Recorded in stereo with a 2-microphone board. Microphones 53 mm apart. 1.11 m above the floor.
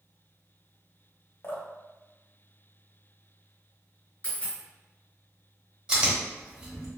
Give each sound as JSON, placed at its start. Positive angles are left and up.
{"t": 1.4, "sound": "dripping", "side_deg": 45, "distance_m": 0.7}
{"t": 4.2, "sound": "a dropped coin", "side_deg": 25, "distance_m": 1.9}
{"t": 5.9, "sound": "chewing", "side_deg": -15, "distance_m": 1.0}